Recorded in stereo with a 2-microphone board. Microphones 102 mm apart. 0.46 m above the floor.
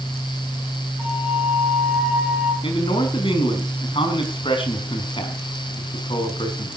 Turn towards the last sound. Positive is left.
turn(degrees=55)  # may be behind; listen again after turning